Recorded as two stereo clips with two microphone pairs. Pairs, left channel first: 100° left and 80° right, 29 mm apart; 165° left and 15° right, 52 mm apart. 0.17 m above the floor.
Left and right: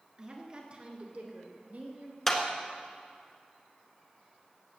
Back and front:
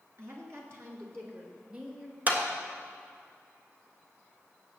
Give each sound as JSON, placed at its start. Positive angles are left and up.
{"t": 0.2, "sound": "a woman speaking", "azimuth_deg": -15, "distance_m": 2.5}
{"t": 2.3, "sound": "a clap", "azimuth_deg": 30, "distance_m": 1.6}